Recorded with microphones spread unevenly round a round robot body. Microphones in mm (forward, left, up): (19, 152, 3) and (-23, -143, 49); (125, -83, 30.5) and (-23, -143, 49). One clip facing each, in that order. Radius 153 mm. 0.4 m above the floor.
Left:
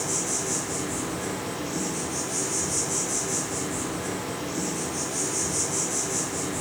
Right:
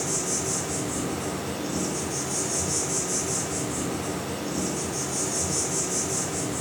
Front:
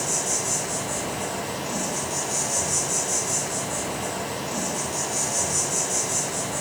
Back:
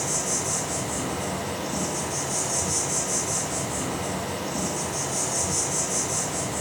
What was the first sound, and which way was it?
An insect, 55° right.